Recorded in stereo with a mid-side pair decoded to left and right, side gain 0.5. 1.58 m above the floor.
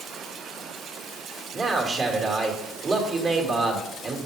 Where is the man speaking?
40° right, 2.5 m.